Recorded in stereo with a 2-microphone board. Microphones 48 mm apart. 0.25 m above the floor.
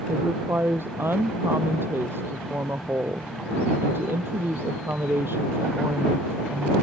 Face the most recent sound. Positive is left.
turn(degrees=-55)  # may be behind; listen again after turning